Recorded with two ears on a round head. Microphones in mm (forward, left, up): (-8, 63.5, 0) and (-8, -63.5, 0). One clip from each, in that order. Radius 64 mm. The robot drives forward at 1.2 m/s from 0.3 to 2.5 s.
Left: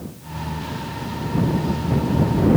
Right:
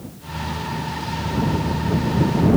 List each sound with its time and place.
Only background noise.